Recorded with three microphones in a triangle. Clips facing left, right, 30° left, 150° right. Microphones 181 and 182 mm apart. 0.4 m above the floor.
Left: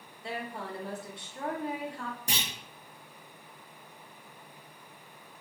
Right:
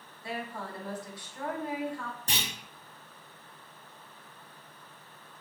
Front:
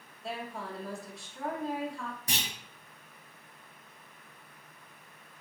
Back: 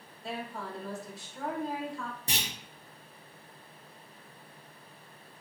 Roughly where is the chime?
I don't hear a chime.